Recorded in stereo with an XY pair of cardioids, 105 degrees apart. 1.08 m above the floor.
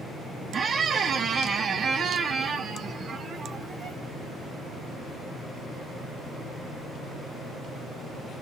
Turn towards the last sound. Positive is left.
turn(degrees=-45)